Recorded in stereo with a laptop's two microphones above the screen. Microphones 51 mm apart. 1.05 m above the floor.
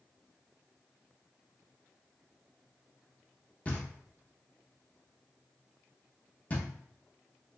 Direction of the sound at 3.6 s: 30° left (ahead or behind).